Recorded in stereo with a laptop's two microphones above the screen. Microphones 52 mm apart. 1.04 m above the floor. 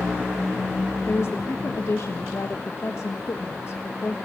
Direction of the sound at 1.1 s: 60° left (ahead or behind).